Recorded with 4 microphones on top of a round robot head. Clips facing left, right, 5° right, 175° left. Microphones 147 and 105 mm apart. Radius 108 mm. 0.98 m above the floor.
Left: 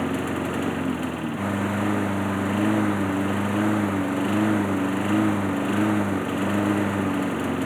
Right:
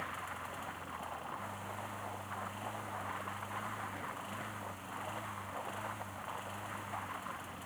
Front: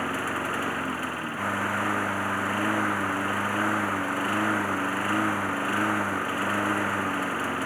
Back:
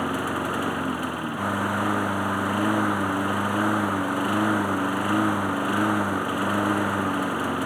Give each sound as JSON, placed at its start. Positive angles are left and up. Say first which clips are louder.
{"t": 0.0, "sound": "a lawn mower", "louder": "left 21 dB, back 3 dB", "azimuth_deg": 100}